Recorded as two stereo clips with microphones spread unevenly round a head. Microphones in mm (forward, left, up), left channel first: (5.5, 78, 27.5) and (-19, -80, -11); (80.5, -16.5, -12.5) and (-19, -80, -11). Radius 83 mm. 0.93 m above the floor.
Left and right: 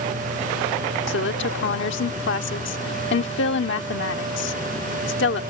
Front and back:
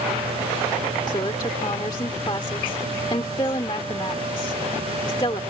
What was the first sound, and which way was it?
A woman speaking, 95° left.